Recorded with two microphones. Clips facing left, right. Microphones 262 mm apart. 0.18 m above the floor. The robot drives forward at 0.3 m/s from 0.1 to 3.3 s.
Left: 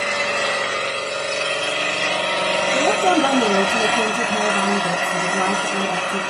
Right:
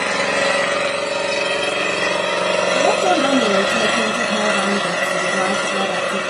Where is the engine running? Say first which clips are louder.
Right 4 dB; 80° right, 0.8 m; by 6.3 s 40° right (ahead or behind), 1.1 m.